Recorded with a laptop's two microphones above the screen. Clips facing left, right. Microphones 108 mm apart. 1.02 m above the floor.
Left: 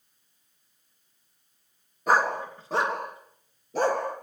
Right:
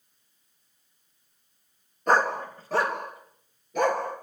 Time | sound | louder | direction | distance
2.1 | a dog barking | even | 5° left (ahead or behind) | 3 m